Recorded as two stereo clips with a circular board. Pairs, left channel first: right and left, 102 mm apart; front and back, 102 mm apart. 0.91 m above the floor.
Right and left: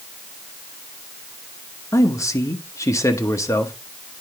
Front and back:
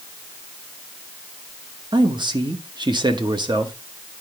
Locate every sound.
1.9 s a man speaking: 145° right, 1.1 m